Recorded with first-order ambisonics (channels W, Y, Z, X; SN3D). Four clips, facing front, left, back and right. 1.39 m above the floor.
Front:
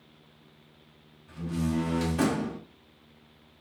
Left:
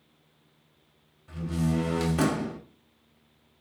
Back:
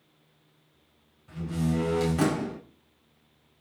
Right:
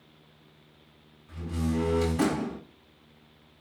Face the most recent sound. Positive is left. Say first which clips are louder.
# left 2 dB, back 1 dB
turn(degrees=110)